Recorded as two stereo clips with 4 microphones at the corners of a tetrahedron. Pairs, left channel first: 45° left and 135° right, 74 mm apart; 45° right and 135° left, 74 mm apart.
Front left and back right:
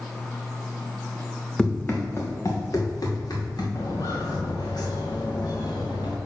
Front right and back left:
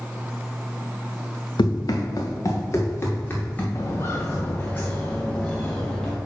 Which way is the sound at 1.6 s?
30° right.